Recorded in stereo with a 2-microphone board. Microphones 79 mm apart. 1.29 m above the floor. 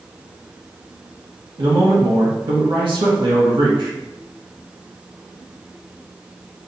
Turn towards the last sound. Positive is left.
turn(degrees=-90)